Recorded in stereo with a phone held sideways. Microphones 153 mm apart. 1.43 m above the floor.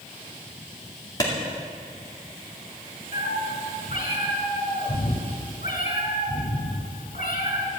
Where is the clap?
25° left (ahead or behind), 2 m.